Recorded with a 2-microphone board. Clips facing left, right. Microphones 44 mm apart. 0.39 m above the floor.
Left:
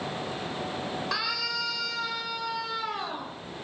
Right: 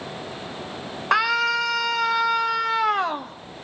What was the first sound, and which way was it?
A scream, 45° right (ahead or behind).